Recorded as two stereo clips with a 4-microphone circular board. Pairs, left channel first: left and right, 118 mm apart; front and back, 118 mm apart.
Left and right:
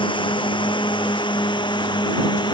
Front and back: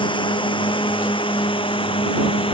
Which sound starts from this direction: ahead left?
A drone, at 0.0 s.